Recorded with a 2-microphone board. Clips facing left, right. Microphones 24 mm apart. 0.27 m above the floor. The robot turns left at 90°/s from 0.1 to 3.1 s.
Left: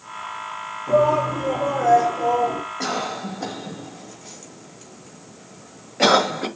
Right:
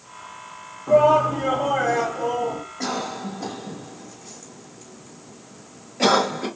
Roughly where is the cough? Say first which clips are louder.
Even; centre.